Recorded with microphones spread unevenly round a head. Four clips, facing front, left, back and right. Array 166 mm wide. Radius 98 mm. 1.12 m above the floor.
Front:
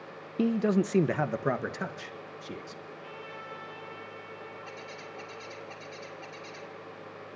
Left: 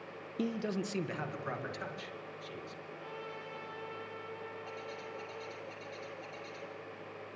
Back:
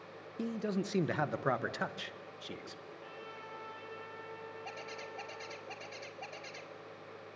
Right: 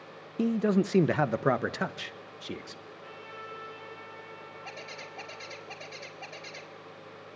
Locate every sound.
0.4 s a man speaking: 15° right, 0.7 m; by 2.8 s 75° right, 2.5 m
2.9 s a trumpet: 140° left, 7 m
4.7 s a bird: 95° right, 5 m